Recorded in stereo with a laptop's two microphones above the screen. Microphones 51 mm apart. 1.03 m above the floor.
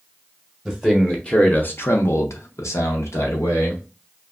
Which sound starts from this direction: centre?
A man speaking, at 0.7 s.